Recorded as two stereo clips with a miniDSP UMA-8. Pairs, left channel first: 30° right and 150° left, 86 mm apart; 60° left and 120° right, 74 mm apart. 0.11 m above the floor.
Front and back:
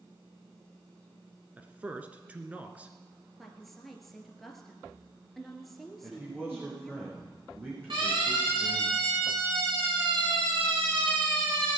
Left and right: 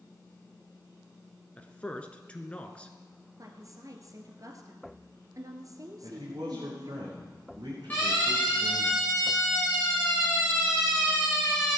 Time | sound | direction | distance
1.6 | a man speaking | 105° left | 1.3 m
3.4 | a woman speaking | 120° right | 1.7 m
6.0 | a man speaking | 145° right | 6 m
7.9 | a siren | 130° left | 9.5 m